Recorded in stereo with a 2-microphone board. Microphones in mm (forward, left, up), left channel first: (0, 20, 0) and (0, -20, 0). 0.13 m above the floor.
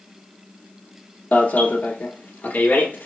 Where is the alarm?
50° left (ahead or behind), 1.3 m.